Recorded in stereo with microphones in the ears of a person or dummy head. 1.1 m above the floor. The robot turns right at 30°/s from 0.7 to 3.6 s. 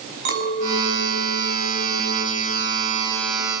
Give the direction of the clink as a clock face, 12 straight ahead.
4 o'clock.